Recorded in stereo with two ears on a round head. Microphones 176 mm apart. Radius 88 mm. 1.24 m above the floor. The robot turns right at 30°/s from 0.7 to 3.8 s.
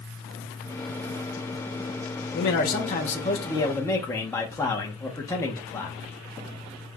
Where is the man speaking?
120° left, 1.0 m; by 6.0 s 165° left, 1.0 m.